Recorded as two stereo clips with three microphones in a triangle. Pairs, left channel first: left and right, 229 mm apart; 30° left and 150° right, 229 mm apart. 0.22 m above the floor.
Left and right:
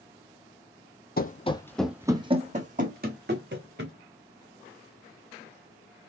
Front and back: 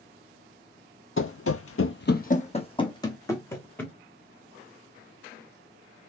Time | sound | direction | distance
1.2 | running footsteps | 50° left | 0.5 m